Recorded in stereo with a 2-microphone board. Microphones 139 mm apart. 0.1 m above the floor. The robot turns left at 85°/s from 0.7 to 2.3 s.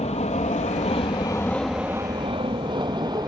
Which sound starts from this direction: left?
An aircraft, at 0.0 s.